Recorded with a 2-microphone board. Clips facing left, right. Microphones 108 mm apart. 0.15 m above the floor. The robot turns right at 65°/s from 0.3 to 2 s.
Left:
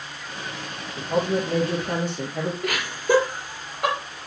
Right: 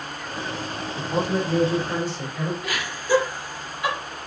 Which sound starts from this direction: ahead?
A man speaking, at 1.0 s.